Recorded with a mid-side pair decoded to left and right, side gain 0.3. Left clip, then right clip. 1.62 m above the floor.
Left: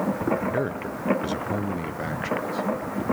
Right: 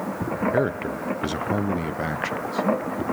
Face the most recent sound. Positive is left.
turn(degrees=-45)